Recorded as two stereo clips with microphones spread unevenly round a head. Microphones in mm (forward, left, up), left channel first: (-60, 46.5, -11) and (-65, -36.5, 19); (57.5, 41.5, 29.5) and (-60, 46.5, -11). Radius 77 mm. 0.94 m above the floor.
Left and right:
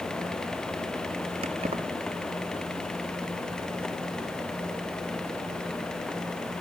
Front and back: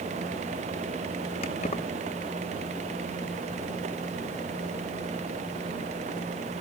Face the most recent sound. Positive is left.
turn(degrees=-55)